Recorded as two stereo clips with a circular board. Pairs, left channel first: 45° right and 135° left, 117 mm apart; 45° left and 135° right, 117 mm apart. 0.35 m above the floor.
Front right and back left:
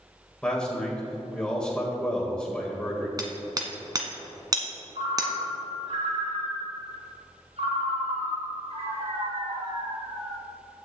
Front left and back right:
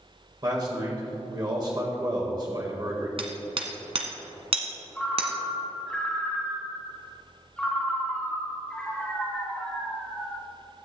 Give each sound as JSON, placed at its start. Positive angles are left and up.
{"t": 0.4, "sound": "a man speaking", "azimuth_deg": -120, "distance_m": 1.7}
{"t": 3.2, "sound": "hammering", "azimuth_deg": -170, "distance_m": 1.5}
{"t": 5.0, "sound": "a ringtone", "azimuth_deg": 125, "distance_m": 2.5}